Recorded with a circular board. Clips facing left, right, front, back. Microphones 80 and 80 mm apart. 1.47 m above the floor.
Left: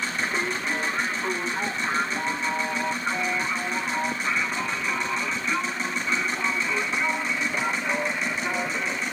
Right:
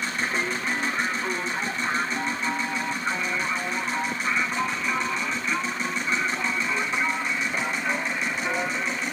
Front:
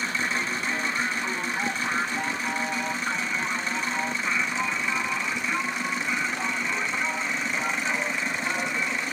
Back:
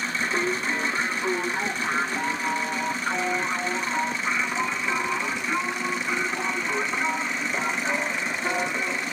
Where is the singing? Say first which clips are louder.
Right 1 dB, back 3 dB; 175° right, 1.1 m.